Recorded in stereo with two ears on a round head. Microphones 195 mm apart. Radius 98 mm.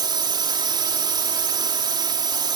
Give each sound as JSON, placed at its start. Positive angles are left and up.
{"t": 0.0, "sound": "a drone", "side_deg": -20}